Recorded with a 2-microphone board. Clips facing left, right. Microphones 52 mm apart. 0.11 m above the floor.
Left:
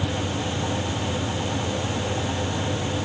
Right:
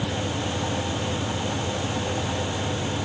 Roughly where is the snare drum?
I don't hear a snare drum.